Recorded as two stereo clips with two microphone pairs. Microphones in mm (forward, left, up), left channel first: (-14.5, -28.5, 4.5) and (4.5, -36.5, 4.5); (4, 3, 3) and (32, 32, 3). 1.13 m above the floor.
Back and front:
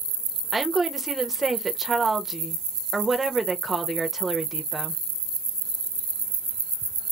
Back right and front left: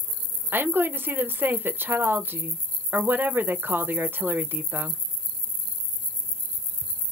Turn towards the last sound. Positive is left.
turn(degrees=55)